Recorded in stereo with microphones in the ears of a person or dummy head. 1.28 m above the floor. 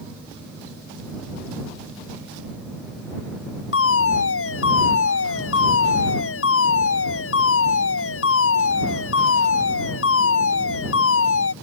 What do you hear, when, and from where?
3.7 s a fire alarm: 85° left